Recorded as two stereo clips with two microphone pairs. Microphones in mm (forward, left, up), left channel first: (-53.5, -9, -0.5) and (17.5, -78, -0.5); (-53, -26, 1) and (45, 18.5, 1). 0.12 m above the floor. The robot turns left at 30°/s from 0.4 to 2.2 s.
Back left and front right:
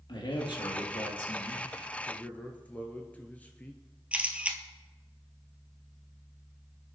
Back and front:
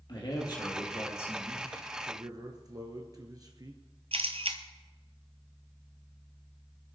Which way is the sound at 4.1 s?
30° left.